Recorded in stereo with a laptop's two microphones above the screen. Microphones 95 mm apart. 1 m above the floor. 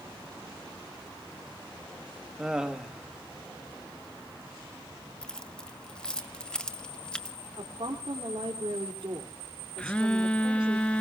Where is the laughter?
10° right (ahead or behind), 1.3 m.